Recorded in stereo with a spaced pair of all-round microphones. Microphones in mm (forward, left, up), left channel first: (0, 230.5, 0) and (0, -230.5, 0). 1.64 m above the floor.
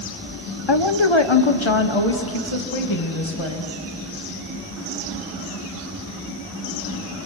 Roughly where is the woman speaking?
Left.